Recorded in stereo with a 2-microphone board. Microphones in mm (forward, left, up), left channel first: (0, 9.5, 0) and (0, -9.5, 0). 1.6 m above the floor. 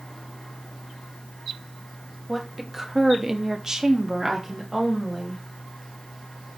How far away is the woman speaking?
About 1.1 m.